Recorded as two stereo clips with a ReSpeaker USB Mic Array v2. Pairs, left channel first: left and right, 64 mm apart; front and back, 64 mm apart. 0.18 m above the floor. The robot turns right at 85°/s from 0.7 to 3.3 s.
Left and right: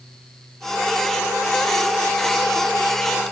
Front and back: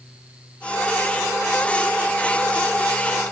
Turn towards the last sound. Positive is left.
No sound to turn to.